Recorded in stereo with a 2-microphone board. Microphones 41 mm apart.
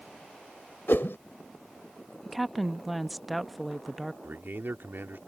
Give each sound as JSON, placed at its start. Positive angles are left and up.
{"t": 0.9, "sound": "a whoosh", "side_deg": 75}
{"t": 2.2, "sound": "a woman speaking", "side_deg": 0}
{"t": 4.2, "sound": "a man speaking", "side_deg": -60}